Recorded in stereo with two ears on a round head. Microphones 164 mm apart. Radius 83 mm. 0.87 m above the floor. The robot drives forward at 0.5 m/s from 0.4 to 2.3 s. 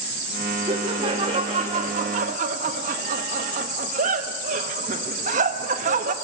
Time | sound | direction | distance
0.7 | laughter | 25° right (ahead or behind) | 1.7 m